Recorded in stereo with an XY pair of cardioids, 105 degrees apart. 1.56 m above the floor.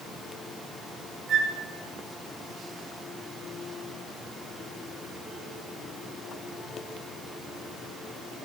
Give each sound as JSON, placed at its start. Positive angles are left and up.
{"t": 1.3, "sound": "a flute", "azimuth_deg": -60, "distance_m": 1.5}